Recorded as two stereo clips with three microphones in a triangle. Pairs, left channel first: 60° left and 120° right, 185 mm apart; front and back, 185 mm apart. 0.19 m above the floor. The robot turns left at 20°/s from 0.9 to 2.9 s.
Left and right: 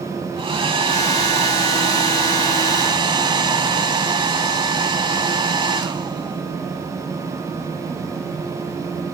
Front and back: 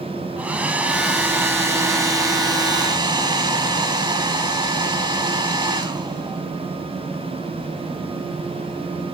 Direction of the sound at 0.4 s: 105° right.